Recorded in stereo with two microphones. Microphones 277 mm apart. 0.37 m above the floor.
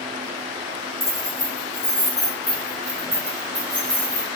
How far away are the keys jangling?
About 0.9 m.